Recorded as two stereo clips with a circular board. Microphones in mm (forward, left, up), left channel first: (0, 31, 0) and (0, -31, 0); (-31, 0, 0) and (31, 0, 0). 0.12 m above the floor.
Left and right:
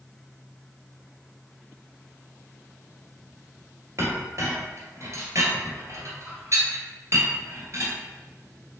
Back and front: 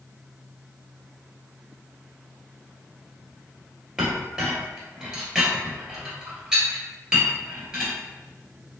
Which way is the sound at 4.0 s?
75° right.